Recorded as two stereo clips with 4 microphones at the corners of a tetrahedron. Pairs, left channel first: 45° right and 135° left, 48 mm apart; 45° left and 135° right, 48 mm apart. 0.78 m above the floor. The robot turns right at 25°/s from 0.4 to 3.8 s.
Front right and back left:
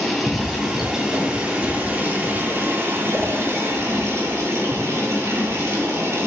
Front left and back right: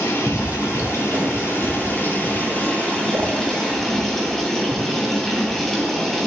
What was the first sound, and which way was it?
Running water, 45° left.